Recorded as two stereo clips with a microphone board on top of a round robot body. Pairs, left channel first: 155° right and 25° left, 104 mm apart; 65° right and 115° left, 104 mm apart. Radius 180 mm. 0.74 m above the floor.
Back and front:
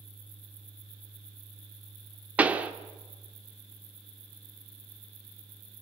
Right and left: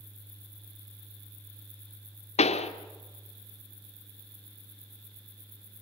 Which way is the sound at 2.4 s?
55° right.